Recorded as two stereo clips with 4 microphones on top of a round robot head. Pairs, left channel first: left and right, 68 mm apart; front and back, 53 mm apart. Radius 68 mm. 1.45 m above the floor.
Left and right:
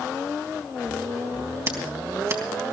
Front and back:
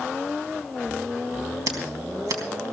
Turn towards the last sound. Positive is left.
turn(degrees=-145)